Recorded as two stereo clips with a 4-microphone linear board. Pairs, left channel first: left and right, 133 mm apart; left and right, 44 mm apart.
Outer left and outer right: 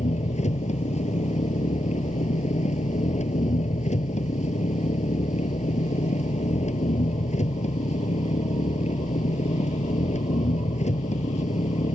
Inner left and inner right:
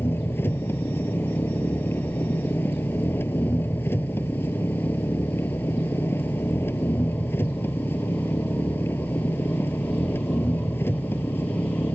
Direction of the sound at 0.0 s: 60° left (ahead or behind).